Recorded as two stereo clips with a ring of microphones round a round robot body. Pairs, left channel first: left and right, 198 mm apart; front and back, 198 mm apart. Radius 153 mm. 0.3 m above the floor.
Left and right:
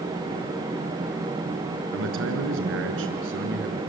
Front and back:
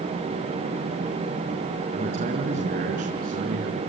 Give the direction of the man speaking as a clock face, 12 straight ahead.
4 o'clock.